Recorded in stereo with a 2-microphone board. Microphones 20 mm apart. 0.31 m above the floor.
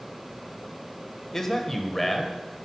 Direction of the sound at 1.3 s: 20° left (ahead or behind).